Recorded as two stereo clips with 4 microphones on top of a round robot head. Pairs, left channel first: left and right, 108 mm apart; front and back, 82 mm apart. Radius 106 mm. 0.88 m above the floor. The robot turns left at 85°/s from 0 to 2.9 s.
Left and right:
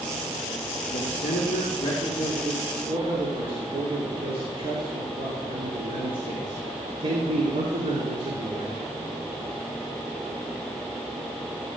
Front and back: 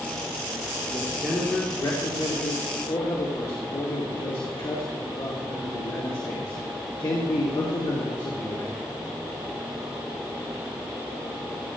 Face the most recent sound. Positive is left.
turn(degrees=-45)